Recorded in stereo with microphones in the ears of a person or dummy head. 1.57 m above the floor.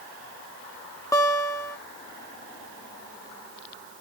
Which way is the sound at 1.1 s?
10° left (ahead or behind).